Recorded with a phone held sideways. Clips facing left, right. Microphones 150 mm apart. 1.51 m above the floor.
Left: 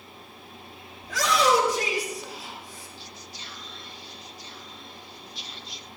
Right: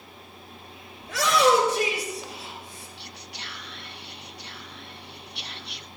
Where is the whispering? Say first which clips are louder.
Right 1 dB; 65° right (ahead or behind), 0.7 m.